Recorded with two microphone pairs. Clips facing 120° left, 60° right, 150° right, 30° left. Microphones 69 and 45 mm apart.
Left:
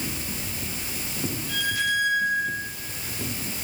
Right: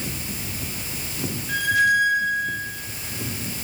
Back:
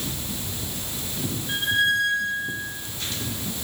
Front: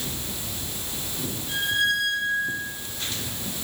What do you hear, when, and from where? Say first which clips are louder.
1.5 s a squeak: right 8 dB, back 2 dB; 100° right, 7 m